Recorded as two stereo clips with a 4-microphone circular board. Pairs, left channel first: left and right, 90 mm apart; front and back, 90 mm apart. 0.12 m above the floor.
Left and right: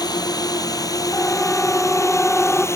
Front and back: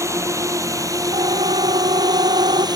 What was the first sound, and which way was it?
A drone, 125° left.